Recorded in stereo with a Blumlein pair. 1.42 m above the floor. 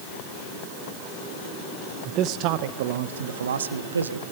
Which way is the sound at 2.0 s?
30° right.